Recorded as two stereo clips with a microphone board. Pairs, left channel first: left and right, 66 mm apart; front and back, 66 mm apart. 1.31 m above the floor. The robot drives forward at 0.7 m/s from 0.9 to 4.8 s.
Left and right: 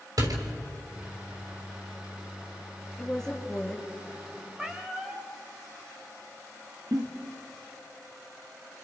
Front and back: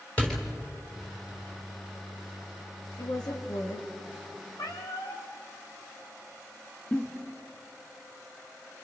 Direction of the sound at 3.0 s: 10° left.